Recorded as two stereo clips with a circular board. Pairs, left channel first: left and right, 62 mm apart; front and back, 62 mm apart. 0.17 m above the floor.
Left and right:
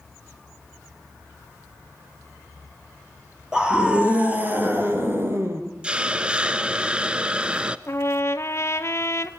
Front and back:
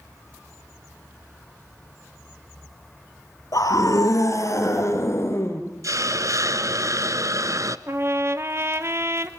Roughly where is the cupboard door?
No cupboard door in this recording.